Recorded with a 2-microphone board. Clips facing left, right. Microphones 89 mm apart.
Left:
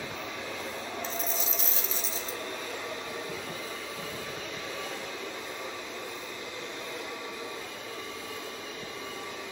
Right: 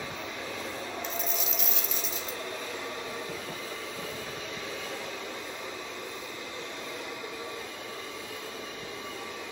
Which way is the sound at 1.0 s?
35° left (ahead or behind).